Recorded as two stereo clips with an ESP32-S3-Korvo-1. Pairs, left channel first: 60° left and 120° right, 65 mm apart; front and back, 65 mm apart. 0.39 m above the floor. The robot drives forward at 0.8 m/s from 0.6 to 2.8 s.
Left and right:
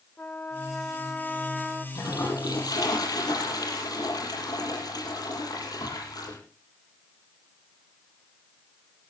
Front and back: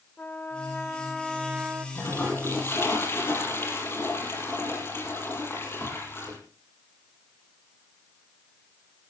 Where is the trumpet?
35° left, 1.1 m; by 1.9 s 140° left, 1.1 m.